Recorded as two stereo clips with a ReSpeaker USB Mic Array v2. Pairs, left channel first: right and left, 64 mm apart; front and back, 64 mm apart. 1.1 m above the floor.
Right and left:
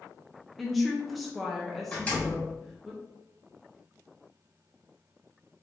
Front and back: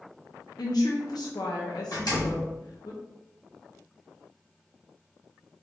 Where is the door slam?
20° right, 2 m.